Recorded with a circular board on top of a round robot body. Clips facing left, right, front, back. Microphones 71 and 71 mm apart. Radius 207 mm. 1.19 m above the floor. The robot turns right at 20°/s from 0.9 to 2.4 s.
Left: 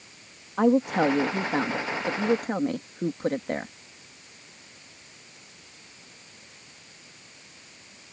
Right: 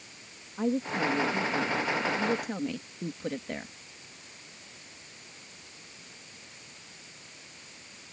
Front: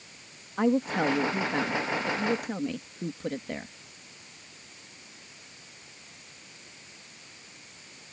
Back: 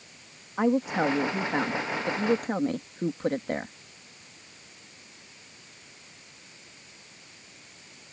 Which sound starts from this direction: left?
A woman speaking, at 0.6 s.